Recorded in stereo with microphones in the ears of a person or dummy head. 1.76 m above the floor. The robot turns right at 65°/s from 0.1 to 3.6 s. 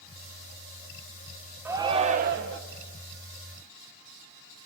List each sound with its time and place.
1.6 s a shout: 170° right, 1.6 m; by 2.6 s 110° right, 1.6 m